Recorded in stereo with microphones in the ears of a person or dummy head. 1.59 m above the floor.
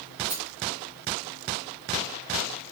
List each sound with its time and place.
0.3 s a rattle: 10° right (ahead or behind), 6.5 m